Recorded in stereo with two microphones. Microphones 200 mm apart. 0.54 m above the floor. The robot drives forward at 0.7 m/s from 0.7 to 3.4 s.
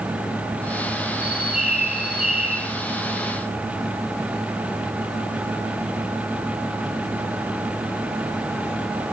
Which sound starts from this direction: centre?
A bird, at 1.2 s.